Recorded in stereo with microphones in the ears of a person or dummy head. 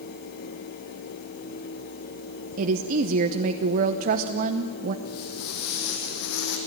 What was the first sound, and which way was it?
A woman speaking, 50° right (ahead or behind).